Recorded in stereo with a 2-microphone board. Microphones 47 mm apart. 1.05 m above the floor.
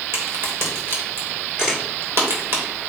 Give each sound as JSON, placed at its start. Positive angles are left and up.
{"t": 0.1, "sound": "a crack", "side_deg": -55, "distance_m": 3.0}
{"t": 1.6, "sound": "a camera shutter", "side_deg": -15, "distance_m": 2.5}